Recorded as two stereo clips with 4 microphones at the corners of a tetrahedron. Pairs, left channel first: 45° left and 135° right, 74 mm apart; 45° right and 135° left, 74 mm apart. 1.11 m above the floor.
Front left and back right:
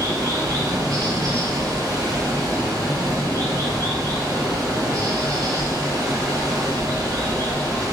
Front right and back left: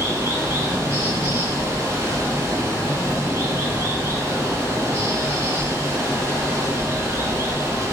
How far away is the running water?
About 1.0 m.